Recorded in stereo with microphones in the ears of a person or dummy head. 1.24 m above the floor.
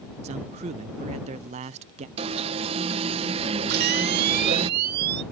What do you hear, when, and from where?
0.2 s a man speaking: 35° right (ahead or behind)
2.2 s an alarm: 30° right (ahead or behind)
3.7 s a camera shutter: 55° right (ahead or behind)